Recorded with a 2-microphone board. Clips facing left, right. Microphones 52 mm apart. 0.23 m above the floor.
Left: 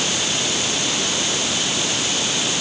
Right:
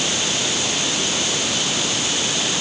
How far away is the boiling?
I don't hear boiling.